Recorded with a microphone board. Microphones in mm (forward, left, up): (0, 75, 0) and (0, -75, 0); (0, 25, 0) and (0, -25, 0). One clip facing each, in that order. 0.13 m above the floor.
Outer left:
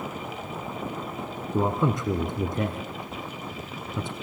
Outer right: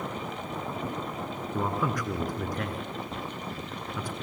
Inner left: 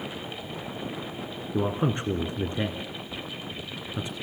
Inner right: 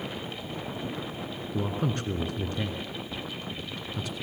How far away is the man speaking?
About 1.4 m.